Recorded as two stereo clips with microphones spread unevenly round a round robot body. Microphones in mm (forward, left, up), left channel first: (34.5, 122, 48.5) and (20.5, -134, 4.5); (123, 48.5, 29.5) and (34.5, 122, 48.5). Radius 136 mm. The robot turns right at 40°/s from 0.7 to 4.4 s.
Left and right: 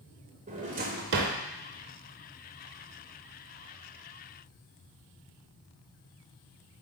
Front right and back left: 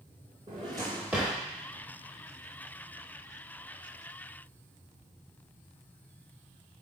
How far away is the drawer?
About 0.8 m.